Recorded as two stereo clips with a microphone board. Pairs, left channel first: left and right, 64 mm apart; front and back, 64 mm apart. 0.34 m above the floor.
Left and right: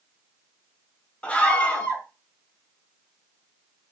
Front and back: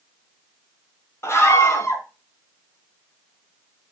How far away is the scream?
About 1.7 m.